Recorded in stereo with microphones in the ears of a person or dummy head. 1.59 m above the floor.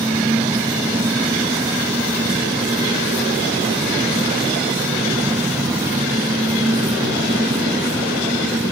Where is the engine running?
20° right (ahead or behind).